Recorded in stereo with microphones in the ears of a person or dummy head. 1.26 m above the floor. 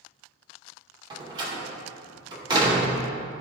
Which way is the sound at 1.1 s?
25° right (ahead or behind).